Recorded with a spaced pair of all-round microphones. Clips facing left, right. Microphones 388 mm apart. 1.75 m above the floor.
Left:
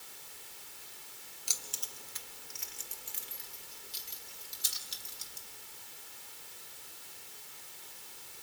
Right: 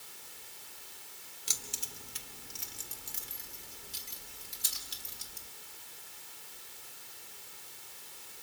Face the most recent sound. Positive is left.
turn(degrees=-70)  # may be behind; listen again after turning